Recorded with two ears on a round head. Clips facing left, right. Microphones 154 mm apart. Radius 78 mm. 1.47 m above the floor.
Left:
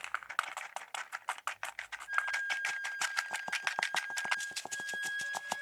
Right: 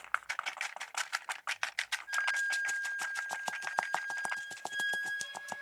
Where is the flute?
50° right (ahead or behind), 3.5 m.